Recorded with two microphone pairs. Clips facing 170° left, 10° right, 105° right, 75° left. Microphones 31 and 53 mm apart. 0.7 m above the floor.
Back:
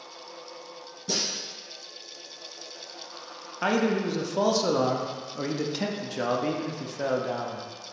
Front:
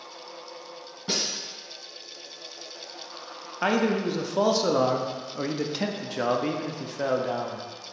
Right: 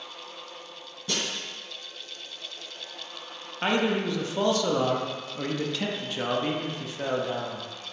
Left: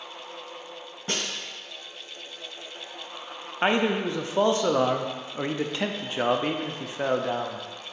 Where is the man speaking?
75° left, 0.5 m.